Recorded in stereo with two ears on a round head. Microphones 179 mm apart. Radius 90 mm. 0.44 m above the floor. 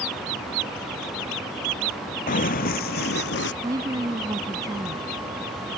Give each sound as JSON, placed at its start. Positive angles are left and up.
{"t": 2.3, "sound": "running footsteps", "side_deg": 40}
{"t": 3.6, "sound": "a woman speaking", "side_deg": -20}